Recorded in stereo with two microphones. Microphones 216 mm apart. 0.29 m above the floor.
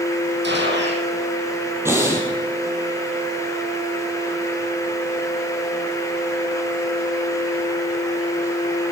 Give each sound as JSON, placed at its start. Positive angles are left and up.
{"t": 0.4, "sound": "a gunshot", "side_deg": -60, "distance_m": 3.5}
{"t": 1.9, "sound": "breathing", "side_deg": -10, "distance_m": 5.0}